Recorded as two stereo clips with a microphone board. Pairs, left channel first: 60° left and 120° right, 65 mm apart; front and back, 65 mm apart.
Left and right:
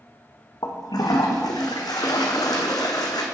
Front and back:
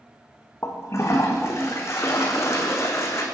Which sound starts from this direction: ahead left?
A toilet flushing, at 0.6 s.